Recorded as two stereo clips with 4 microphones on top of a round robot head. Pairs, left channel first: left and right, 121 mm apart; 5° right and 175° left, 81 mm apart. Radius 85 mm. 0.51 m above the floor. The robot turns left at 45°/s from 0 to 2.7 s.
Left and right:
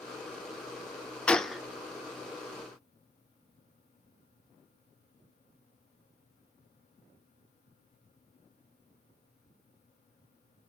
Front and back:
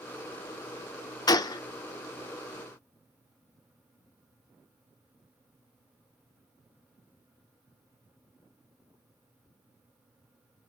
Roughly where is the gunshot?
Ahead.